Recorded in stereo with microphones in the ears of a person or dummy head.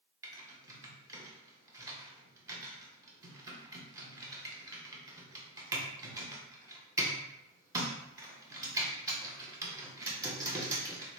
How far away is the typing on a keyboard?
About 0.7 m.